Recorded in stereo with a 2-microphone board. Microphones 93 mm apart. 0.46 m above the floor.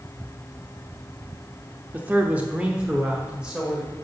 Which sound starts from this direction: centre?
A man speaking, at 1.9 s.